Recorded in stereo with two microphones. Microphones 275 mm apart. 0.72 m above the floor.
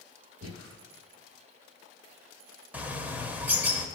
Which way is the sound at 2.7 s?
5° right (ahead or behind).